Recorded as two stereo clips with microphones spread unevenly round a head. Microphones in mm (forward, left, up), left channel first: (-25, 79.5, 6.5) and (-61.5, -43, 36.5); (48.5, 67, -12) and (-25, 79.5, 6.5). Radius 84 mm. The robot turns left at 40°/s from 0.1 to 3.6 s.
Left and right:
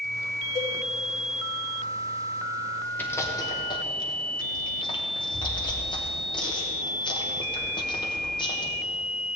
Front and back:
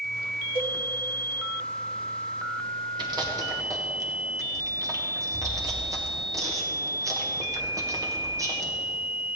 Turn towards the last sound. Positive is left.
turn(degrees=125)